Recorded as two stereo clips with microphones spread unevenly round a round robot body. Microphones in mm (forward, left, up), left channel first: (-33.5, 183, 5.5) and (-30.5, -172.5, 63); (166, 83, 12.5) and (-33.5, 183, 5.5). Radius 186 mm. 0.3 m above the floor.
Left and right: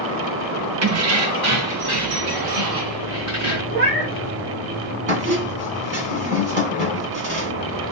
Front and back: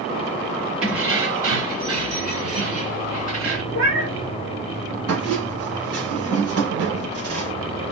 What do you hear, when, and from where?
0.8 s keys jangling: 125° right, 0.7 m; by 3.6 s 140° right, 2.0 m
3.7 s a cat meowing: 150° right, 1.7 m
5.1 s a squeak: 150° right, 1.3 m